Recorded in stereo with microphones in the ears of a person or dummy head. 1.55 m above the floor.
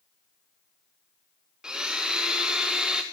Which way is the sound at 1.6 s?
10° right (ahead or behind).